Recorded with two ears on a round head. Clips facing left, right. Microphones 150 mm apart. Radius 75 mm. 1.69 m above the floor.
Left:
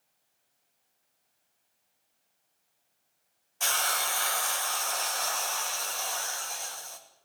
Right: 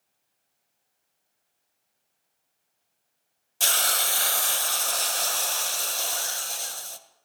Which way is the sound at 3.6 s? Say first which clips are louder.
Right 1 dB; 40° right (ahead or behind).